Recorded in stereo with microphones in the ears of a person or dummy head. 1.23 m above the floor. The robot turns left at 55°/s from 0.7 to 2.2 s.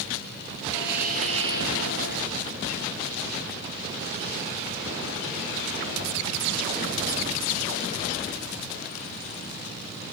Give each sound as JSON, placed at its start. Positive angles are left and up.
{"t": 0.7, "sound": "a hiss", "azimuth_deg": -110, "distance_m": 4.0}